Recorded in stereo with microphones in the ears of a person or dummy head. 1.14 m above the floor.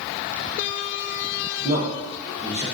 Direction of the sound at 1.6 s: 30° right (ahead or behind).